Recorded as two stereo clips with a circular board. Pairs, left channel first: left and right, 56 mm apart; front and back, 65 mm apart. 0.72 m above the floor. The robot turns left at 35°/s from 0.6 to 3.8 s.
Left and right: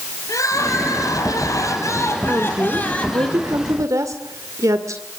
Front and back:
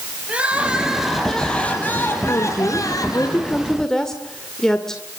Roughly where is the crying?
Left.